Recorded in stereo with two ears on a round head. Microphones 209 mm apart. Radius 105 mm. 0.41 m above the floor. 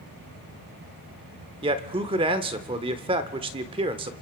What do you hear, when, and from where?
1.6 s a man speaking: 25° right (ahead or behind), 0.9 m